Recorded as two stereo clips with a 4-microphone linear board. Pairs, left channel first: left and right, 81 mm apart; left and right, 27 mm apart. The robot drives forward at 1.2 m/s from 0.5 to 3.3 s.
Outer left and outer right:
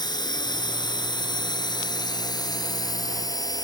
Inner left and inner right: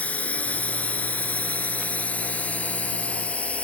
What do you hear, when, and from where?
0.0 s a drone: 60° left (ahead or behind); by 3.6 s 50° left (ahead or behind)